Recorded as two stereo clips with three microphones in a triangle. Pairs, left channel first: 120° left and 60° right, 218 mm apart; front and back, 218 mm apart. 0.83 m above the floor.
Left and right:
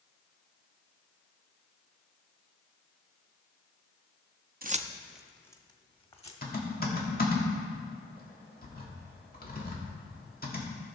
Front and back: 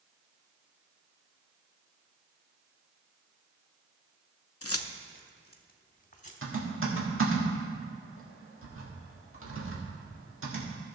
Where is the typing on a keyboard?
165° left, 1.7 m.